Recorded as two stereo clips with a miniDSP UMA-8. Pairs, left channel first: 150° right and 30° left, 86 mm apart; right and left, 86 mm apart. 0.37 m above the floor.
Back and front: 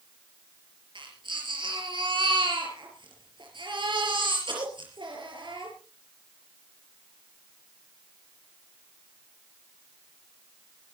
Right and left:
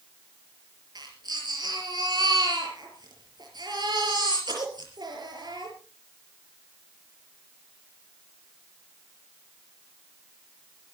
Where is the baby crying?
55° left, 5 m.